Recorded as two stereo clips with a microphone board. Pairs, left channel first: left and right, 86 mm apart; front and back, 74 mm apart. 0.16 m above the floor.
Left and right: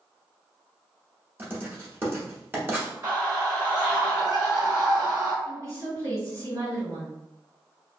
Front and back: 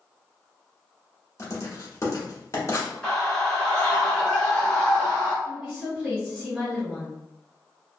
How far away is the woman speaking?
About 2.0 m.